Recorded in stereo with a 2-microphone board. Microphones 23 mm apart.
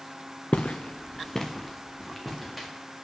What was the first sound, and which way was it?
Footsteps, 80° left.